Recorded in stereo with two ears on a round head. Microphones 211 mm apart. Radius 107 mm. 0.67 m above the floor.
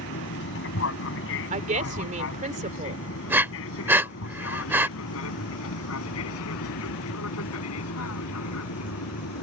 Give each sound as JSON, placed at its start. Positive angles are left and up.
{"t": 0.0, "sound": "an aircraft", "side_deg": 50}
{"t": 1.5, "sound": "a woman speaking", "side_deg": -35}
{"t": 3.3, "sound": "breathing", "side_deg": -10}